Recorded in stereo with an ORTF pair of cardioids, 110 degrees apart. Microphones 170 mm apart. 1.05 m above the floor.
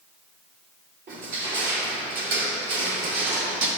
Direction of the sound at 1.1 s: 55° right.